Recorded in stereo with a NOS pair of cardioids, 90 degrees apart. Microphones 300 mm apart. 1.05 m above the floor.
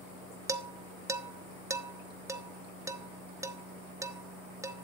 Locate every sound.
0.5 s dishes clattering: 10° right, 0.7 m